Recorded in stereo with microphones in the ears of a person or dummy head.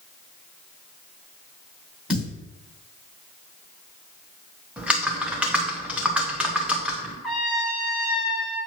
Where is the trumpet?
5° left (ahead or behind), 1.4 m.